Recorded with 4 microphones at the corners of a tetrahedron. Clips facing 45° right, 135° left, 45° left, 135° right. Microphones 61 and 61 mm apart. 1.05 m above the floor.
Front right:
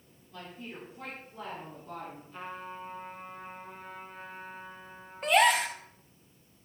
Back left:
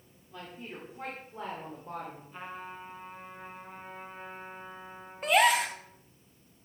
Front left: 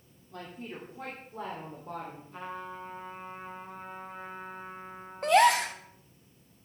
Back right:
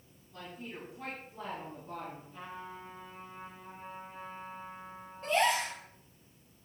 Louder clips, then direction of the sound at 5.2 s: Even, front left 7 dB; 45° left.